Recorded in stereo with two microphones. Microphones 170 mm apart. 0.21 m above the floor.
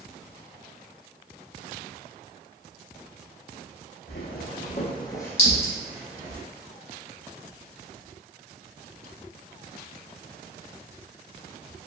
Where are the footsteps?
75° left (ahead or behind), 0.7 m; by 6.4 s 20° right (ahead or behind), 1.0 m.